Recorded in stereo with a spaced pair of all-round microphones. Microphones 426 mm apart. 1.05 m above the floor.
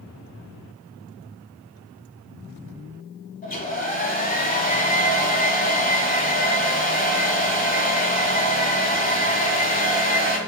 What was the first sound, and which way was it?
A hair dryer, 20° left (ahead or behind).